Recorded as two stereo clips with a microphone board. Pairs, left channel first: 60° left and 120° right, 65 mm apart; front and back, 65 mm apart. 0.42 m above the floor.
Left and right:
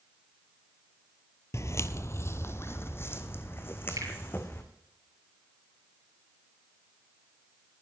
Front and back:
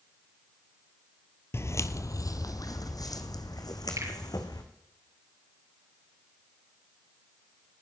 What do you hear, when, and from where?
1.5 s footsteps: 35° left, 0.6 m; by 4.6 s 5° left, 2.5 m
4.0 s a finger snap: 150° right, 7 m